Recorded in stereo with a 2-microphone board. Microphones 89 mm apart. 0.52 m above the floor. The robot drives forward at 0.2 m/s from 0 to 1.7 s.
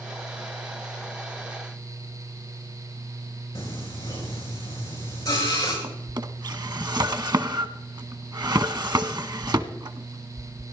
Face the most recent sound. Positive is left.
turn(degrees=-50)  # may be behind; listen again after turning